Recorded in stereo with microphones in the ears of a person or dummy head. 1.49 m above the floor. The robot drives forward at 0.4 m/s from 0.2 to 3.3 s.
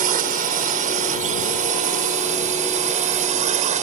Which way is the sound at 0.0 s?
45° right (ahead or behind).